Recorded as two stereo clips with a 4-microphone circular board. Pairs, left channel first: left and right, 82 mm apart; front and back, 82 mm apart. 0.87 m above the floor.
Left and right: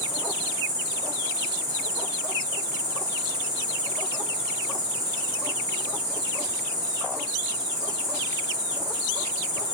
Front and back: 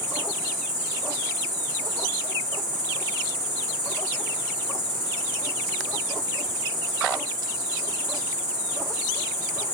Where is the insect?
100° right, 0.9 m.